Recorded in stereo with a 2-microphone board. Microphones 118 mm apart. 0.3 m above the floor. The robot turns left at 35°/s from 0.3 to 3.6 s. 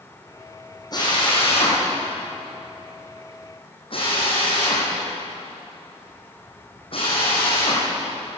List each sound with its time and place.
0.9 s a drill: 35° left (ahead or behind), 9.5 m; by 7.8 s 50° left (ahead or behind), 9.5 m